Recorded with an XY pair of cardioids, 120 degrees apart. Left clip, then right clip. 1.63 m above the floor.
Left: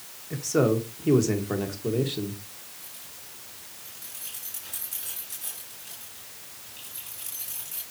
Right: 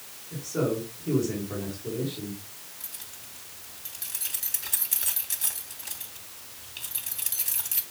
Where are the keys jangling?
60° right, 3 m.